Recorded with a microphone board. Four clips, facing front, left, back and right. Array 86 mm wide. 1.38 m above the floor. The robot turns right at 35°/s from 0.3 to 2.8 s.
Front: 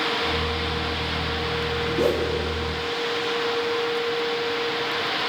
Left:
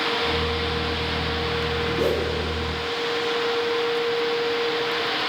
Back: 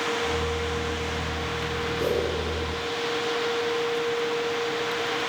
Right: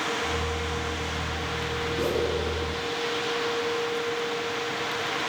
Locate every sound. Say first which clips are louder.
2.0 s a whoosh: left 2 dB, front 3 dB; 20° left, 3.5 m; by 2.3 s 30° left, 3.5 m